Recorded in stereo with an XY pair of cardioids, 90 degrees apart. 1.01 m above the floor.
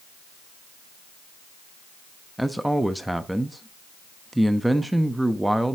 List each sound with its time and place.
2.4 s a man speaking: 10° right, 0.9 m